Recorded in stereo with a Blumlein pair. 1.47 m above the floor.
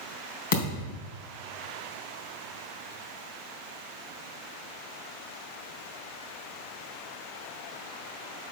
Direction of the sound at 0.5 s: 55° left.